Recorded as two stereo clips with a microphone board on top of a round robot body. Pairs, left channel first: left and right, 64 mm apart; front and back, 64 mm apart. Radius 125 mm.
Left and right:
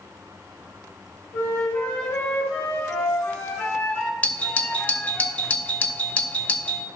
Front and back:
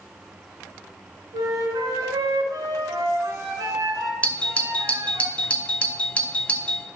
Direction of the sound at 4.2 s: 45° left.